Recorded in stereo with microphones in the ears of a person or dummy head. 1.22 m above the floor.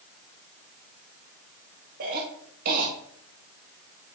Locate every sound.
2.0 s a cough: 50° right (ahead or behind), 1.4 m